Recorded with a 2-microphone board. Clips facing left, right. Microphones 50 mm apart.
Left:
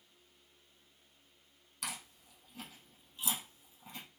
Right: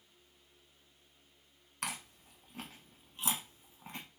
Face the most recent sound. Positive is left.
turn(degrees=-45)  # may be behind; listen again after turning